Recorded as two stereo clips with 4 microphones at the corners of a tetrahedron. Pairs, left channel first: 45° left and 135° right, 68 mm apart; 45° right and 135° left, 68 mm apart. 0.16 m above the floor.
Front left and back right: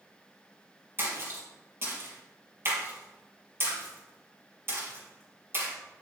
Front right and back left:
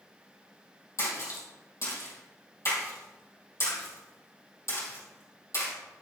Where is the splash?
85° right, 3.5 m.